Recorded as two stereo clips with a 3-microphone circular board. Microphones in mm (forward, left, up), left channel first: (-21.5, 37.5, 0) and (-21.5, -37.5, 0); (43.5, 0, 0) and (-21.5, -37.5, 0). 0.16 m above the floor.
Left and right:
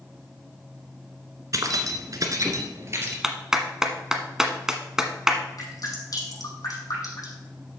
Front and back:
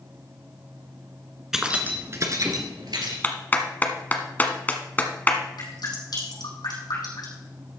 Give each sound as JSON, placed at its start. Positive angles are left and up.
{"t": 1.5, "sound": "keys jangling", "azimuth_deg": -70, "distance_m": 1.3}
{"t": 3.2, "sound": "a clap", "azimuth_deg": -15, "distance_m": 1.0}
{"t": 5.6, "sound": "dripping", "azimuth_deg": 55, "distance_m": 6.0}